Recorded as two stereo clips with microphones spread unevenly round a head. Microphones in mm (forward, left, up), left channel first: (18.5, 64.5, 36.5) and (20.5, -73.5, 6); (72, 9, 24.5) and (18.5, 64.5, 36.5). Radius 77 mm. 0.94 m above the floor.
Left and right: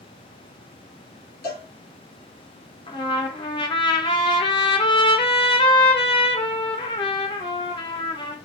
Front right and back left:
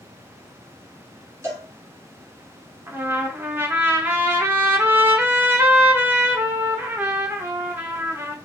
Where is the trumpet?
105° left, 0.6 m.